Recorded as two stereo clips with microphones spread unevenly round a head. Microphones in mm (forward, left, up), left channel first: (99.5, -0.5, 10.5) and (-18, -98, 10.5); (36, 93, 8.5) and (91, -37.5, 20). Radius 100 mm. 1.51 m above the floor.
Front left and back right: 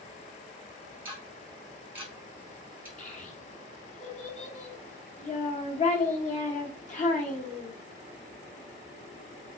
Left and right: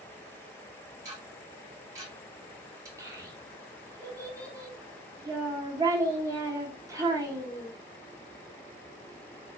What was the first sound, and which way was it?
Ticking, 75° right.